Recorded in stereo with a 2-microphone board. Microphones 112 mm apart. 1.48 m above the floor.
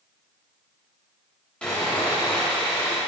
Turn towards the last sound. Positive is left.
turn(degrees=10)  # may be behind; listen again after turning